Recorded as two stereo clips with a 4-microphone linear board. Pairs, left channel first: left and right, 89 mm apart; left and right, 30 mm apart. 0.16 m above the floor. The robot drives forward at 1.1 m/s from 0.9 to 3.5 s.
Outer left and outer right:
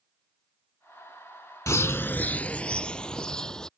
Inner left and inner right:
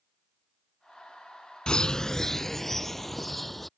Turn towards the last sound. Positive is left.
turn(degrees=10)  # may be behind; listen again after turning